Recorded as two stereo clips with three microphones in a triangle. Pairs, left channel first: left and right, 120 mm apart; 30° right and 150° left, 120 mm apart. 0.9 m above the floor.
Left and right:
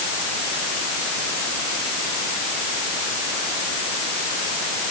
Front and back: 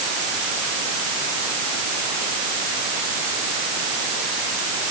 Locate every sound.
Only background noise.